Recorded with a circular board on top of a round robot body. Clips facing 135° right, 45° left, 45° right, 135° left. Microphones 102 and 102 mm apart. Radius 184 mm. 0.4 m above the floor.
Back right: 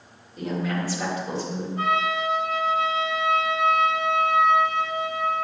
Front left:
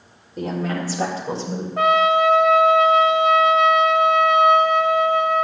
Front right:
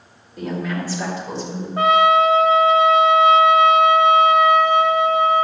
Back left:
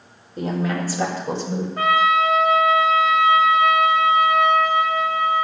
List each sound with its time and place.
0.4 s a woman speaking: 85° left, 4 m; by 1.7 s 110° left, 3.5 m
1.8 s a trumpet: 20° left, 0.6 m